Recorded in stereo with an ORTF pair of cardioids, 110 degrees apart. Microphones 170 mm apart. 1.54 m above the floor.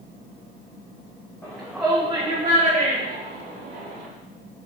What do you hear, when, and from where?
1.4 s a shout: 5° left, 1.7 m; by 4.1 s 80° right, 3 m